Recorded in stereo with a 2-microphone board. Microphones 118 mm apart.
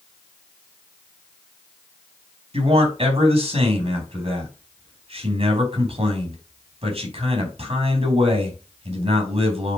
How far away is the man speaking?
About 3 m.